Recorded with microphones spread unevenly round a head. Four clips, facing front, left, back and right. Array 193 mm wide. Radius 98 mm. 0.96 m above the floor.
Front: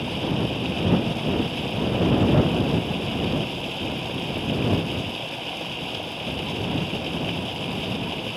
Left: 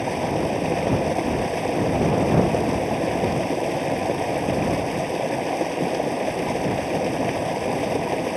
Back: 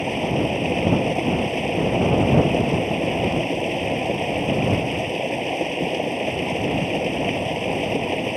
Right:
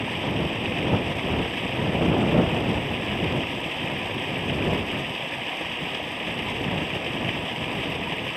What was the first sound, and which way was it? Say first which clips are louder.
Running water: left 5 dB, back 4 dB; 135° left.